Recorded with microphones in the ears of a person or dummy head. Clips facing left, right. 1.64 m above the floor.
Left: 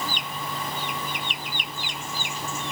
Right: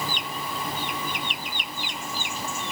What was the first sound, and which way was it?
Only background noise.